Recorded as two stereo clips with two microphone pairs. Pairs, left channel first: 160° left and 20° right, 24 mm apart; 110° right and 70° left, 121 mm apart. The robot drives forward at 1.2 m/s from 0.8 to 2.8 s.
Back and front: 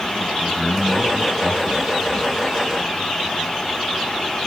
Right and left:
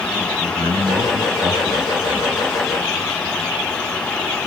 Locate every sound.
0.4 s a man speaking: 80° left, 3 m; by 2.5 s 115° left, 3.5 m